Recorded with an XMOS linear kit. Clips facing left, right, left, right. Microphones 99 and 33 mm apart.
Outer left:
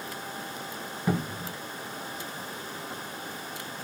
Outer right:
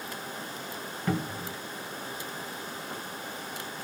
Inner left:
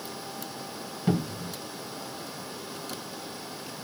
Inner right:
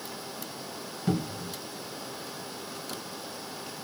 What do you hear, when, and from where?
1.1 s a cupboard door: 10° left (ahead or behind), 0.5 m